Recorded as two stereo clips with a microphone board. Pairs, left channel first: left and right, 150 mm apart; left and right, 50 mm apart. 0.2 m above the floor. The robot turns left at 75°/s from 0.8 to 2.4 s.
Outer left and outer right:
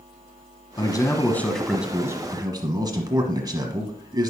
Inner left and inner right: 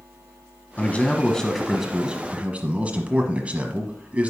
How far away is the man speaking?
About 1.2 m.